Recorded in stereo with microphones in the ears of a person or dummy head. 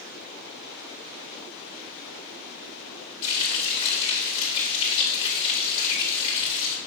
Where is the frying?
30° left (ahead or behind), 3 m.